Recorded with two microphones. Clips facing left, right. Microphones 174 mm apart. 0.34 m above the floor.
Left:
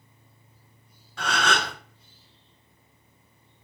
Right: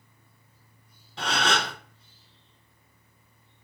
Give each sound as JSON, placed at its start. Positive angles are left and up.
{"t": 1.2, "sound": "a gasp", "side_deg": -20, "distance_m": 1.6}